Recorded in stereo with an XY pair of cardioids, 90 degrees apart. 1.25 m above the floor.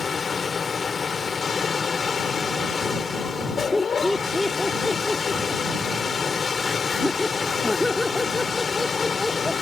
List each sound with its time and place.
0.0 s a machine running: 40° left
3.7 s laughter: 10° left